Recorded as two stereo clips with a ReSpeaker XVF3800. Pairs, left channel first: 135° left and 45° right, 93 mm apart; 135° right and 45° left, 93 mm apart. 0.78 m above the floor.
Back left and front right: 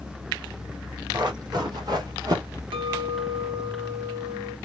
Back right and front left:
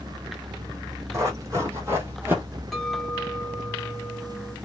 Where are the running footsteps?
10° right, 1.7 m; by 2.6 s 20° right, 1.0 m.